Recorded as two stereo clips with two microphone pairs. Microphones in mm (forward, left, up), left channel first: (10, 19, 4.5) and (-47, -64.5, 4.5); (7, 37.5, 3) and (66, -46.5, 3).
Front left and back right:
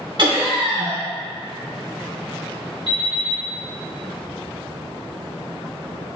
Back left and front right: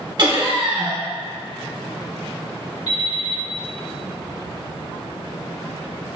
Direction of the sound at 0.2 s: 100° right.